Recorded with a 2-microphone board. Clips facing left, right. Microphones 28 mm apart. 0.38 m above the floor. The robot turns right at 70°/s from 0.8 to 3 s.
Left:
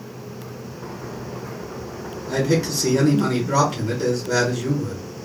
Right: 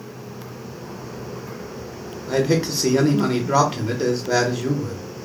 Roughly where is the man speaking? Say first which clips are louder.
Right 1 dB; right.